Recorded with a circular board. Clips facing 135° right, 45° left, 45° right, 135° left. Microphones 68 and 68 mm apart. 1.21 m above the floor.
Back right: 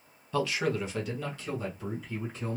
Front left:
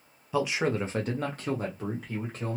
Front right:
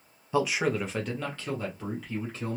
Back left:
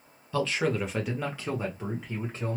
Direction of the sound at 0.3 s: 15° right.